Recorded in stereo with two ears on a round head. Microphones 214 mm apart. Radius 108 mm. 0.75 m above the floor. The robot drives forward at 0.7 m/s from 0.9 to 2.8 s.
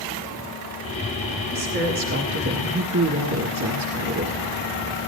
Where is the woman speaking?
40° right (ahead or behind), 1.7 m; by 4.4 s 65° right (ahead or behind), 1.2 m.